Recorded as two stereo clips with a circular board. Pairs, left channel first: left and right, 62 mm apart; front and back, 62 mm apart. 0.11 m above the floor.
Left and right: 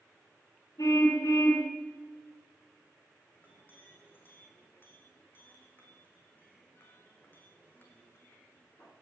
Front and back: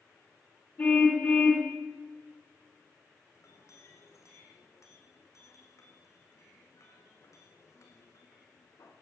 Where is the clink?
35° left, 5.5 m.